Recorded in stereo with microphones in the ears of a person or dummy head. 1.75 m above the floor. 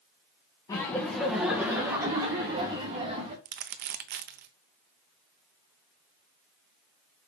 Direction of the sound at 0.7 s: 20° left (ahead or behind).